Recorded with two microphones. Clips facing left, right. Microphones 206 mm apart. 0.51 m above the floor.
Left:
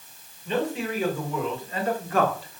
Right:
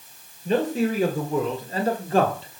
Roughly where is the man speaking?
Right.